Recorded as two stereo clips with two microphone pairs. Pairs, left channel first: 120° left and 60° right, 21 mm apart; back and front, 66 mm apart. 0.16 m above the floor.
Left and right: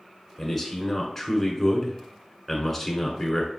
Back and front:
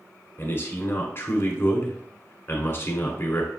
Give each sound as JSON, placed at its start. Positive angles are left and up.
{"t": 0.4, "sound": "a man speaking", "azimuth_deg": -170, "distance_m": 1.3}